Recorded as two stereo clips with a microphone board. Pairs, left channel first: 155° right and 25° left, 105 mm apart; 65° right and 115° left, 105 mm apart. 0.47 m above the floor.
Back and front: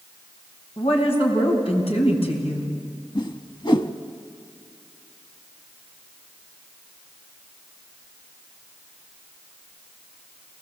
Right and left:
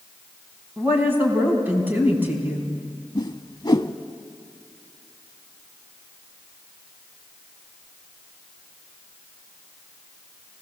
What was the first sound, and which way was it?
A woman speaking, 175° right.